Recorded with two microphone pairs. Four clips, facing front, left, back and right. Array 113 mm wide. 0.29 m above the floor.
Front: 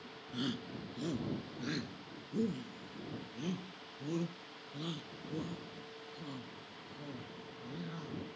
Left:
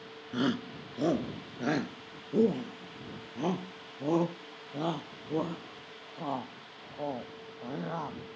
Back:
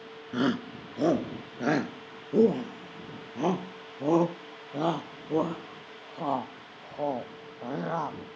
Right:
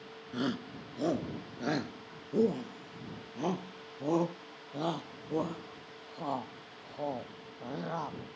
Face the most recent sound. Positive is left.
turn(degrees=180)